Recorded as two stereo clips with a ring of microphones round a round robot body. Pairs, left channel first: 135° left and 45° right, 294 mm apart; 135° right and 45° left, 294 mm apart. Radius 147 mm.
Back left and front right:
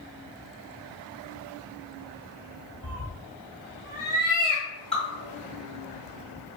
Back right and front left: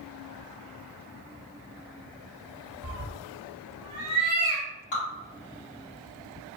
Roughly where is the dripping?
Behind right.